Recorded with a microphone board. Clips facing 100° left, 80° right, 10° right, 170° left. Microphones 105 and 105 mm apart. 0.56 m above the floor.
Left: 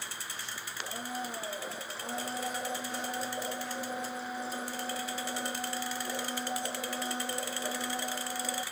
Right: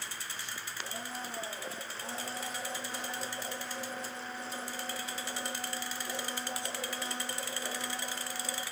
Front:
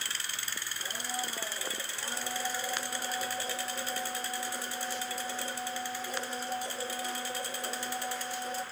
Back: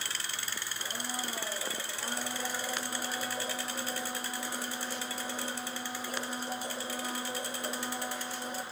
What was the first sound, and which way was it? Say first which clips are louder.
A blender: left 5 dB, front 1 dB; 135° left.